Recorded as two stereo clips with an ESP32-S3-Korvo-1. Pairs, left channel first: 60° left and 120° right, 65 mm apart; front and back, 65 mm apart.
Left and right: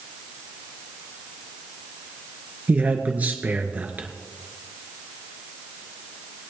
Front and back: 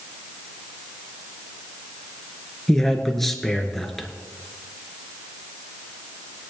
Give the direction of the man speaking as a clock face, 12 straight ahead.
3 o'clock.